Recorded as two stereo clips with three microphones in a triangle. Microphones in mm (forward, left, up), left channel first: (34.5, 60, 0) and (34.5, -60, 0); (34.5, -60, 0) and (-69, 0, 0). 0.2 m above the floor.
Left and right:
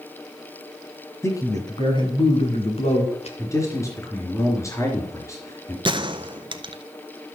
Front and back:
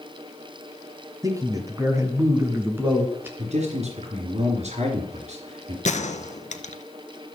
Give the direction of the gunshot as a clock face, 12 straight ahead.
1 o'clock.